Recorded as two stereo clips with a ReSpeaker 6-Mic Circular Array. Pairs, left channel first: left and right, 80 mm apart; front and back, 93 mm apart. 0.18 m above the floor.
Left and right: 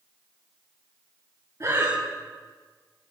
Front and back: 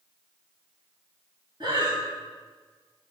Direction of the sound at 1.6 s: 140° right.